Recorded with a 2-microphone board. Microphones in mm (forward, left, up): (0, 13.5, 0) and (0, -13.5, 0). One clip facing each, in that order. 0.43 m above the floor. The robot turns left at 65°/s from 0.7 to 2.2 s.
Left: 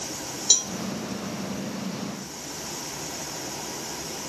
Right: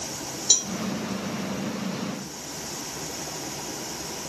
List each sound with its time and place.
0.5 s a cowbell: 10° left (ahead or behind), 0.9 m